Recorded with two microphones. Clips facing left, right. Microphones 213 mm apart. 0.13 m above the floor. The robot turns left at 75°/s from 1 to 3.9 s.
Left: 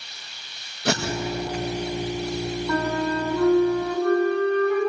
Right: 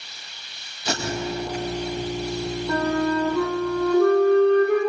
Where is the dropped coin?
No dropped coin in this recording.